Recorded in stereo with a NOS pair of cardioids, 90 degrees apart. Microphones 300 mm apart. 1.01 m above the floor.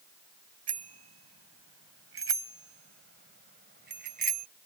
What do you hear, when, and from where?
0.7 s a bicycle bell: 55° right; by 4.5 s 30° right